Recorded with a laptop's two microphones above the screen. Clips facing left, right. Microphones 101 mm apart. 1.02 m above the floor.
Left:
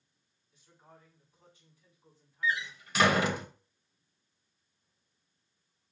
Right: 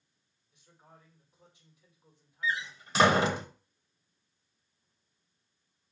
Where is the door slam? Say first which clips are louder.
Left 1 dB; 30° right (ahead or behind), 0.6 m.